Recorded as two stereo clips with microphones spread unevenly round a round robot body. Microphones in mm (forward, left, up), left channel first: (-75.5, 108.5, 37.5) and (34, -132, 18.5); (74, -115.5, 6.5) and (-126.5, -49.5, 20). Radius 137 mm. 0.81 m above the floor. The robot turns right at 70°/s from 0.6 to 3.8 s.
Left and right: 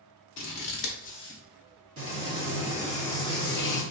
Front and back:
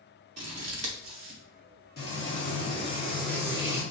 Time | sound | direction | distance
0.4 | scissors | 140° left | 1.0 m
2.0 | frying | 45° right | 1.5 m